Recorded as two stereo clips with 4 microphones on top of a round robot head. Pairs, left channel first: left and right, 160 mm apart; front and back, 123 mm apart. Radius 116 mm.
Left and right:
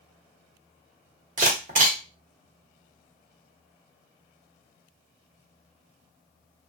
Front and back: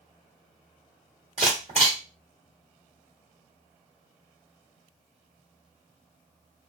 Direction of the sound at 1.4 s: 120° right.